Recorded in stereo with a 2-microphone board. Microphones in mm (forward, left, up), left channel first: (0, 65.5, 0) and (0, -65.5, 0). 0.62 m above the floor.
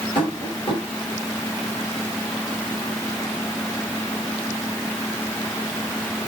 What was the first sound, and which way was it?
Tapping, 45° left (ahead or behind).